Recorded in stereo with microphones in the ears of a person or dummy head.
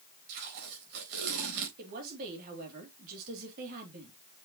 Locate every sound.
0.3 s tape being pulled: 65° right (ahead or behind), 4 m
1.8 s a woman speaking: 55° right (ahead or behind), 3 m